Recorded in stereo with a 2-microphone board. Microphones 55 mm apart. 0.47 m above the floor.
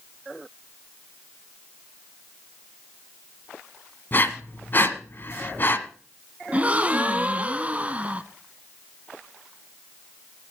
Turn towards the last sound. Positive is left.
turn(degrees=-25)  # may be behind; listen again after turning